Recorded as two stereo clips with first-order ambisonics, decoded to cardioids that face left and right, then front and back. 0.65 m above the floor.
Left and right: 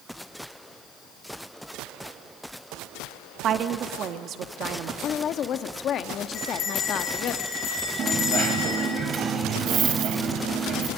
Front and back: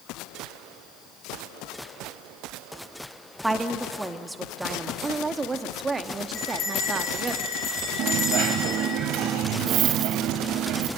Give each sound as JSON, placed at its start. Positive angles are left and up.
{"t": 3.4, "sound": "a woman speaking", "azimuth_deg": -100, "distance_m": 1.0}
{"t": 5.0, "sound": "a woman speaking", "azimuth_deg": 115, "distance_m": 0.9}
{"t": 6.3, "sound": "a bell", "azimuth_deg": 50, "distance_m": 9.0}
{"t": 8.0, "sound": "a dropped coin", "azimuth_deg": -145, "distance_m": 1.6}